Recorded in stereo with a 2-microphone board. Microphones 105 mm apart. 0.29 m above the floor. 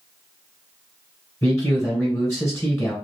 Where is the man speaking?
20° left (ahead or behind), 1.6 m.